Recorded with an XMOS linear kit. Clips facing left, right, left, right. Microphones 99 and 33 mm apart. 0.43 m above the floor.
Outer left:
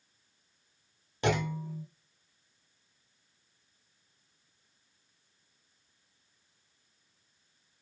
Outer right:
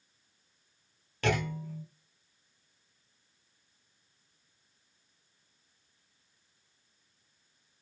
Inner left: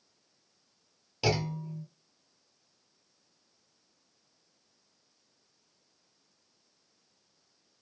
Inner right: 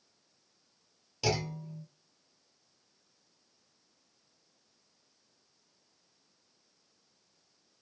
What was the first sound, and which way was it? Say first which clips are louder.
A clunk: outer left 1 dB, inner left 2 dB; 20° left (ahead or behind).